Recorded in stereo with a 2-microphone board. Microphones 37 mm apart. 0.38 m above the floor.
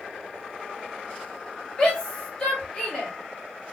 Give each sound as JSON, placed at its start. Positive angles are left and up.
{"t": 1.8, "sound": "a shout", "side_deg": 20, "distance_m": 1.6}